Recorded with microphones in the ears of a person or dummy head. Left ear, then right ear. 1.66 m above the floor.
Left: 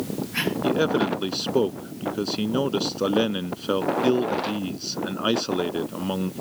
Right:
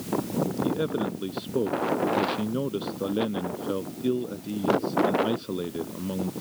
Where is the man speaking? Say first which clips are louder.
Left 6 dB; 65° left (ahead or behind).